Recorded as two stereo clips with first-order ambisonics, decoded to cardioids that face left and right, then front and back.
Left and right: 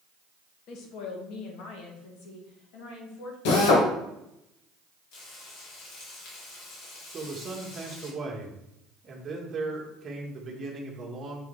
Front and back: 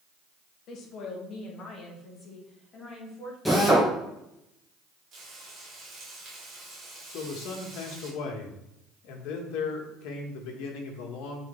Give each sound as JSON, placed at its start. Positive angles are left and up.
{"t": 0.7, "sound": "a woman speaking", "azimuth_deg": 50, "distance_m": 1.3}
{"t": 3.5, "sound": "a drill", "azimuth_deg": 90, "distance_m": 1.5}
{"t": 5.1, "sound": "frying", "azimuth_deg": 120, "distance_m": 2.5}
{"t": 7.1, "sound": "a man speaking", "azimuth_deg": -20, "distance_m": 1.4}